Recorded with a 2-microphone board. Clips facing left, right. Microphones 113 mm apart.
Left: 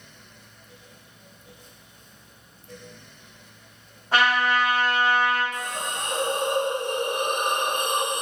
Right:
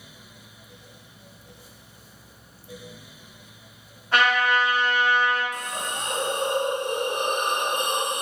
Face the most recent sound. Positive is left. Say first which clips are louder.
# left 1 dB
turn(degrees=-20)  # may be behind; listen again after turning